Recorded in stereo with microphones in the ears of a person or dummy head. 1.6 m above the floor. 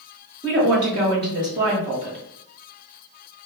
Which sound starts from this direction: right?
A woman speaking, at 0.4 s.